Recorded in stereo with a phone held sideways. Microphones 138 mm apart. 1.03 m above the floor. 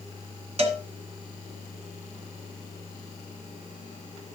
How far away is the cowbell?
About 1.5 m.